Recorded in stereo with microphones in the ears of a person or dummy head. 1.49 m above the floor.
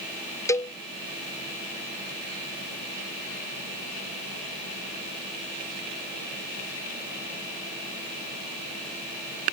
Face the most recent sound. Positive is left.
turn(degrees=20)  # may be behind; listen again after turning